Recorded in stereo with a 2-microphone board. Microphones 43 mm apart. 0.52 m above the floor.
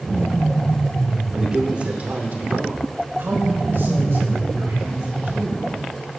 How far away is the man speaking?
About 2 m.